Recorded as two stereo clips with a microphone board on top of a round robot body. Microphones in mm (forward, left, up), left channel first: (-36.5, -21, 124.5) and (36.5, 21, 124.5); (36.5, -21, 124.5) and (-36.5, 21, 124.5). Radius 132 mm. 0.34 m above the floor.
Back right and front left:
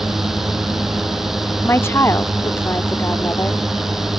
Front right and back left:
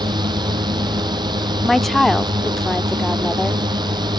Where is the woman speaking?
115° right.